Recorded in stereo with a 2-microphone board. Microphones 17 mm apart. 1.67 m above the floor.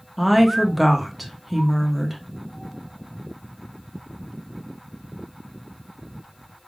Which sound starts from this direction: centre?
A woman speaking, at 0.2 s.